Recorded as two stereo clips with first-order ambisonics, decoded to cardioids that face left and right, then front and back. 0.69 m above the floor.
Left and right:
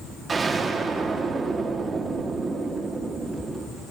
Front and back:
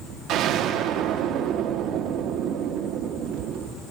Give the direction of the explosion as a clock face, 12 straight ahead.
5 o'clock.